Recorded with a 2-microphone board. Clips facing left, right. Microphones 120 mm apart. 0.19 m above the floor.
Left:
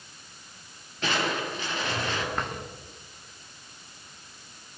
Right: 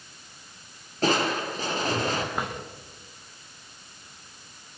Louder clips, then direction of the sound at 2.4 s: Right 1 dB; 10° right (ahead or behind).